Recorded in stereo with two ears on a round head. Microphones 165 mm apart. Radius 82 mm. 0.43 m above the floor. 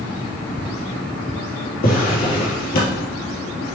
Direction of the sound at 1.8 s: 55° left (ahead or behind).